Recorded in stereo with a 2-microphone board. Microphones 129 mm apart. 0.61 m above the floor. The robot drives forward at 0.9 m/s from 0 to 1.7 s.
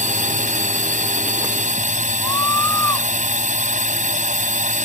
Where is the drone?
75° right (ahead or behind).